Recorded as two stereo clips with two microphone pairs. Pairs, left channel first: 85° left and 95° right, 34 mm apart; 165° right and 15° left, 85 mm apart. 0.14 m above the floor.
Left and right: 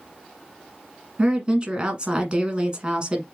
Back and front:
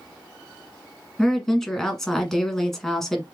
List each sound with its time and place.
1.2 s a woman speaking: 85° right, 1.2 m